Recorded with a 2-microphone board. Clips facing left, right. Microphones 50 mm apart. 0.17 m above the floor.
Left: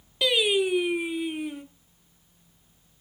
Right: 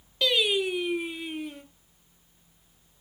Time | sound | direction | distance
0.2 | singing | 10° left (ahead or behind) | 1.3 m